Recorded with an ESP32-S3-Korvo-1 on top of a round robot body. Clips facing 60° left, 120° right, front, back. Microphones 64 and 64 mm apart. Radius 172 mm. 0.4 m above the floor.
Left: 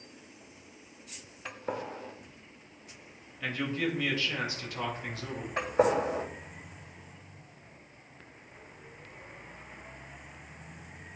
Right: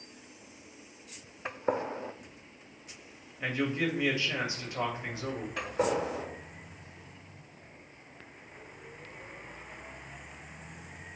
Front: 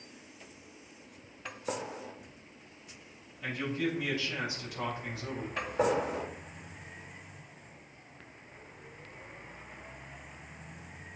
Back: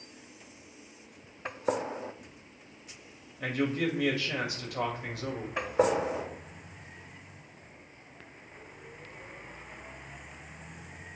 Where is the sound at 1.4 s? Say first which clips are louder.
Right 5 dB, back 6 dB; 160° right, 0.9 m.